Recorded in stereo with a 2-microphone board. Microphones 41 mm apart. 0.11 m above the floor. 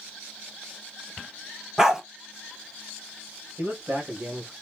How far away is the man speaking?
About 2.5 m.